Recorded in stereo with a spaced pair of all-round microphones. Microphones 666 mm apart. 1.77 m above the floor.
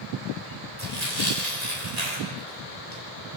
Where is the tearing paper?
70° right (ahead or behind), 7 m.